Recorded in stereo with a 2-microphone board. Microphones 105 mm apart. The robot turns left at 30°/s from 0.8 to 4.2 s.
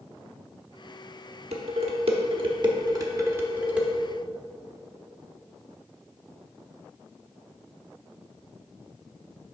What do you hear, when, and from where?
1.5 s dishes clattering: 75° right (ahead or behind), 0.9 m; by 3.9 s 5° right (ahead or behind), 0.9 m